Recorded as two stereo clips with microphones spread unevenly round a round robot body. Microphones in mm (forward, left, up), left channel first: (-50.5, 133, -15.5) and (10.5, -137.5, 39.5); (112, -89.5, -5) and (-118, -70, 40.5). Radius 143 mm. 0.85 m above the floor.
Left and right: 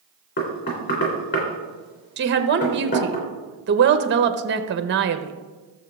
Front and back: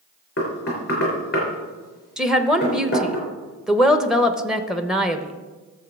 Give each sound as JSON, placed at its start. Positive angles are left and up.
{"t": 0.4, "sound": "knocking", "azimuth_deg": 50, "distance_m": 3.0}
{"t": 2.2, "sound": "a woman speaking", "azimuth_deg": -75, "distance_m": 0.9}